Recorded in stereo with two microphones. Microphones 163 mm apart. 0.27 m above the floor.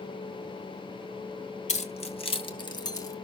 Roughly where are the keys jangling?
Left.